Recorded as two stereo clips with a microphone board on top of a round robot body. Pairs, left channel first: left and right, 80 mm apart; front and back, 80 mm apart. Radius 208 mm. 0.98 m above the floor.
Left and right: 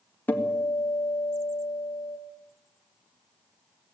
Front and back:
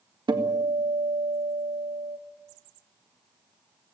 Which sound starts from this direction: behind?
A guitar, at 0.3 s.